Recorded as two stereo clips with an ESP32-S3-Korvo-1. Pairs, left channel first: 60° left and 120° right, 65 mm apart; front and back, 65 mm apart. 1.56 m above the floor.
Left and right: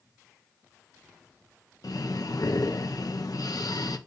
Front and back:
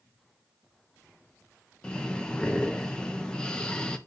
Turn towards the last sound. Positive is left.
turn(degrees=75)